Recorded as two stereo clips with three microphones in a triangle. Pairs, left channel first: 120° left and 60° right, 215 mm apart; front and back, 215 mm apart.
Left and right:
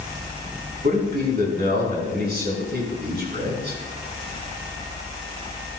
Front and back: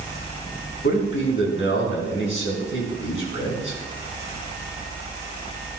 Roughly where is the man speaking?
Ahead.